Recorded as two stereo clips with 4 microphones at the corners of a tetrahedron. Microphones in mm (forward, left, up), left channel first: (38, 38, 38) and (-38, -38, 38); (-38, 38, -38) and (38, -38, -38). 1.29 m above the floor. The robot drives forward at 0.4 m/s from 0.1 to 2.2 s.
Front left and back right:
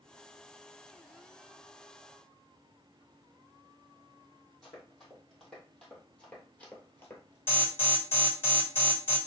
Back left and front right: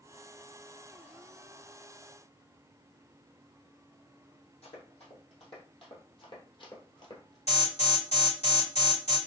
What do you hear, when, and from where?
4.6 s running footsteps: 135° left, 3.5 m; by 7.4 s 100° left, 1.8 m
7.5 s an alarm: 120° left, 3.5 m